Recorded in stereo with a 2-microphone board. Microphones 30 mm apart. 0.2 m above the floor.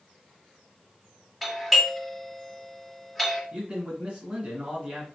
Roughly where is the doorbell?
Centre.